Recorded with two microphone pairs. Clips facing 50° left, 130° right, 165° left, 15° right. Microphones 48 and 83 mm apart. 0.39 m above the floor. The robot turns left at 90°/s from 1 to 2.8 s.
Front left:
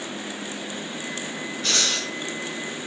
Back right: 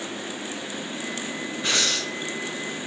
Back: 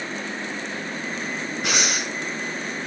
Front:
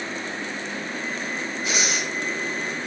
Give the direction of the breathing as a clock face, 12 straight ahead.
7 o'clock.